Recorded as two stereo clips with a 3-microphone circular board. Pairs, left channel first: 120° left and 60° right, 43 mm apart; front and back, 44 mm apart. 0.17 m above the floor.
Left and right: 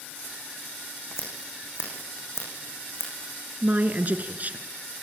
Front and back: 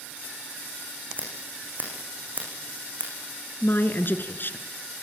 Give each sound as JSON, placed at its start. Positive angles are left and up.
{"t": 1.2, "sound": "scissors", "azimuth_deg": 135, "distance_m": 9.0}
{"t": 3.6, "sound": "a woman speaking", "azimuth_deg": -20, "distance_m": 1.9}